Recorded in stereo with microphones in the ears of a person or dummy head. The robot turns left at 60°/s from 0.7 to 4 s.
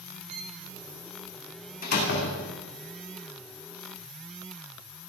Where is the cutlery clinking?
No cutlery clinking in this recording.